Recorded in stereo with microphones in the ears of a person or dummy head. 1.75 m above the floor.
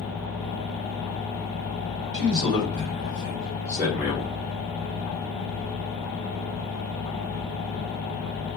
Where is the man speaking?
45° right (ahead or behind), 1.8 m; by 4.3 s 5° right (ahead or behind), 1.0 m.